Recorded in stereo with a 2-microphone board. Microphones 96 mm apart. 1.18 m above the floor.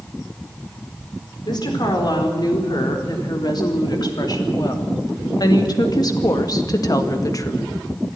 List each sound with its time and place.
1.4 s a woman speaking: 50° left (ahead or behind), 4.5 m; by 7.6 s 35° left (ahead or behind), 1.6 m